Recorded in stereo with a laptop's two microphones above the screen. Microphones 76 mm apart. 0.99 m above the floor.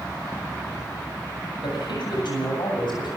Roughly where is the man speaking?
Left.